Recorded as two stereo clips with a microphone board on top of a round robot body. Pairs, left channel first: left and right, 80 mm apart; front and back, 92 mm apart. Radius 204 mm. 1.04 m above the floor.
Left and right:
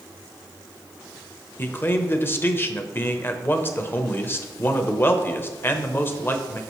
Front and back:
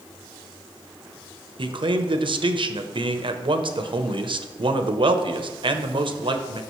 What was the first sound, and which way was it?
A man speaking, 150° left.